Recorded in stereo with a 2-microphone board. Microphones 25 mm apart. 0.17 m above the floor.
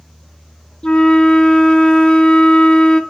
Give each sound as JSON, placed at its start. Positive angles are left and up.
{"t": 0.8, "sound": "a flute", "side_deg": 40, "distance_m": 0.7}